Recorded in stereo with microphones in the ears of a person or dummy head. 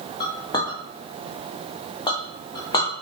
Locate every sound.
0.2 s a clink: 20° left (ahead or behind), 1.2 m